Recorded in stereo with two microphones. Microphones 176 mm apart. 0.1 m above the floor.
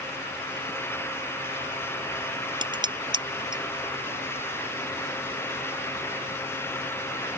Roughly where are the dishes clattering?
Right.